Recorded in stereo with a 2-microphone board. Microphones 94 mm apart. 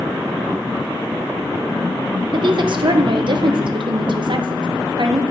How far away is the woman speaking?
About 0.6 m.